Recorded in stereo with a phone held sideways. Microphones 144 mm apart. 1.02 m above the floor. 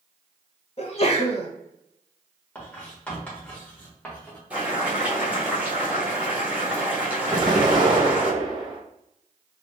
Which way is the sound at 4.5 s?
10° right (ahead or behind).